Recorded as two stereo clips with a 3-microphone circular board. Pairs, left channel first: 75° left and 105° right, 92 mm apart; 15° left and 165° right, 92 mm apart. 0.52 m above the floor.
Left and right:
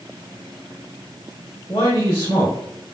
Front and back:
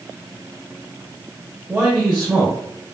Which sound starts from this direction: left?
A man speaking, at 1.7 s.